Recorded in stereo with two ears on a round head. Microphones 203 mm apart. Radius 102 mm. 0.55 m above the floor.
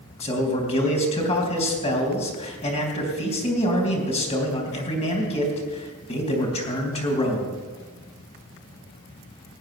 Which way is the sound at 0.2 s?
30° left (ahead or behind).